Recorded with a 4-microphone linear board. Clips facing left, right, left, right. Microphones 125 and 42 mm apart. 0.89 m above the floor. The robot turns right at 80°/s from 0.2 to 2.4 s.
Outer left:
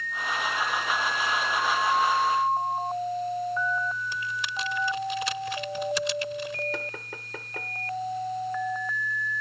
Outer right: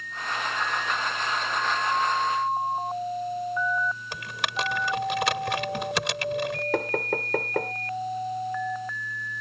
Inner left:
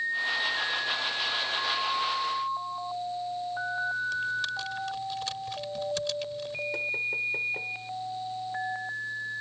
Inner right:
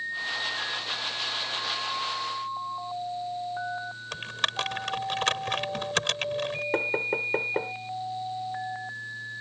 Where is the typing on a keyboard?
70° right (ahead or behind).